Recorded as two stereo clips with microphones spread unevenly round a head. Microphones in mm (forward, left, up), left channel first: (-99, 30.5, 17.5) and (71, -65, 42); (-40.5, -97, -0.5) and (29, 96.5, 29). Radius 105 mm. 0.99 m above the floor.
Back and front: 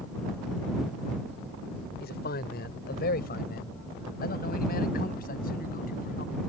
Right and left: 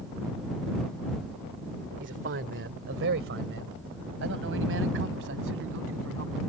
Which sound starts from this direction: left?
A man speaking, at 2.0 s.